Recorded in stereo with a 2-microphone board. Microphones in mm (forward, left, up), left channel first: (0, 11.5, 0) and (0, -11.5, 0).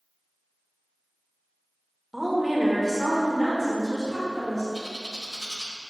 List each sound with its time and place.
2.1 s a woman speaking: 10° right (ahead or behind), 1.2 m; by 4.6 s 10° left (ahead or behind), 2 m
4.7 s a bird: 15° right (ahead or behind), 0.9 m